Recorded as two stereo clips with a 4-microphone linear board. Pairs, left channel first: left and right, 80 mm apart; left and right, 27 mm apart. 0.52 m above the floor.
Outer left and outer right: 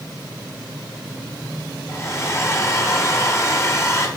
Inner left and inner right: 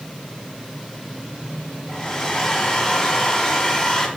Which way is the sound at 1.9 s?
35° left (ahead or behind).